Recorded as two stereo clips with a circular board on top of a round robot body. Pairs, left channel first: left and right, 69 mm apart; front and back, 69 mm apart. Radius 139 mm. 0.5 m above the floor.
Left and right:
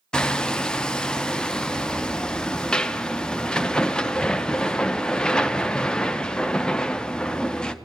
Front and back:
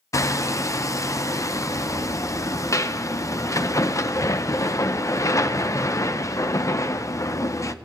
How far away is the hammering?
About 0.8 m.